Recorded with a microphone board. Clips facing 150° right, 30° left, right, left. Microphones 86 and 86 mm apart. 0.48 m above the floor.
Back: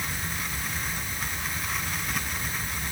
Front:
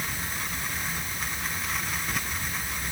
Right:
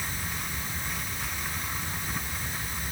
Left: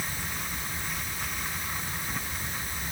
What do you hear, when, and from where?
Only background noise.